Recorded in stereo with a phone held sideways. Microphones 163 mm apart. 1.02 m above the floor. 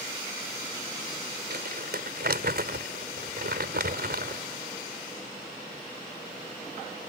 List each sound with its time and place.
1.5 s crumpling: 80° right